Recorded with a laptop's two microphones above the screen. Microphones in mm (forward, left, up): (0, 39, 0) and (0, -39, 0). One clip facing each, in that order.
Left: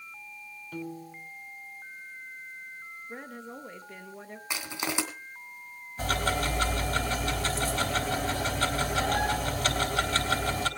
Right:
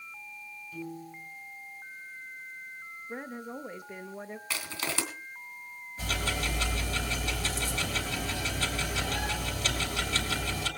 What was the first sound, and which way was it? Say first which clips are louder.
A piano: left 2 dB; 65° left (ahead or behind).